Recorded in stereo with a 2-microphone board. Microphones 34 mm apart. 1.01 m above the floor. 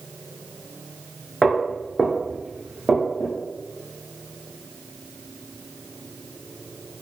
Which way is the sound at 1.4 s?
10° left (ahead or behind).